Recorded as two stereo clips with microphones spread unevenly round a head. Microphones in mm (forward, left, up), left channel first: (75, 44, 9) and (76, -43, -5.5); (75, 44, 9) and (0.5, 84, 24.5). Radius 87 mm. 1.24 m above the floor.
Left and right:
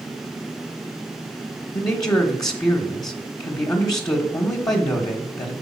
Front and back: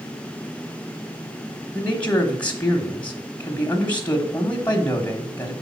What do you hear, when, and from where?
1.7 s a man speaking: 40° left, 1.3 m